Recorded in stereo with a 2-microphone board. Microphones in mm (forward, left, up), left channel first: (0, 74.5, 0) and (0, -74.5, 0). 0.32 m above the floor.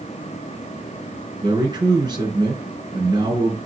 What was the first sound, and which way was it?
A man speaking, 30° right (ahead or behind).